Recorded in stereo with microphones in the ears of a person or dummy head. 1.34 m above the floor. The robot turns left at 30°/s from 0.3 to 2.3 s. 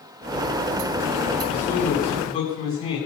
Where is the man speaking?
20° left (ahead or behind), 9.5 m; by 3.0 s 40° left (ahead or behind), 9.5 m.